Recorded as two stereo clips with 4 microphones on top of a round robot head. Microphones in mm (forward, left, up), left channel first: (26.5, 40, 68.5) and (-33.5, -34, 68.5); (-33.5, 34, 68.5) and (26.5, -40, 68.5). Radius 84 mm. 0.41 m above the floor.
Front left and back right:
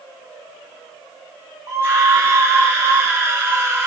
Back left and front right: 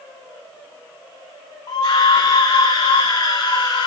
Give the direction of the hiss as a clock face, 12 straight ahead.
No hiss in this recording.